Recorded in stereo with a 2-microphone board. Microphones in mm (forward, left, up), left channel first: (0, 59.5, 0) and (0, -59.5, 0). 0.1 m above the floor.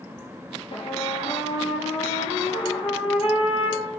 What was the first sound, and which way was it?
A trumpet, 55° left (ahead or behind).